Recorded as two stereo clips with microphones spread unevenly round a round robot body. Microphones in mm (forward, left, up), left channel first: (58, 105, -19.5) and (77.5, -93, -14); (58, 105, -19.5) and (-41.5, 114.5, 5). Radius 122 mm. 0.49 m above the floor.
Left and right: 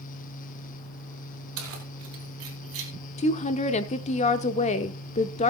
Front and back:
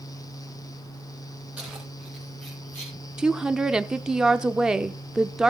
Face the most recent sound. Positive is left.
turn(degrees=80)